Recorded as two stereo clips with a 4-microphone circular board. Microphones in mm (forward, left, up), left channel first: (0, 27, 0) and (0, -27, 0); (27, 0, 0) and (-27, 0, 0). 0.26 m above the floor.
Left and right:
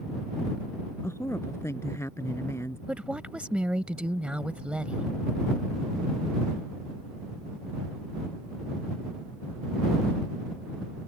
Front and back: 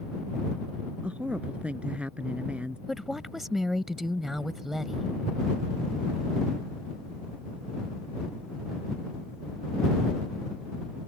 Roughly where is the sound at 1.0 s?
Behind left.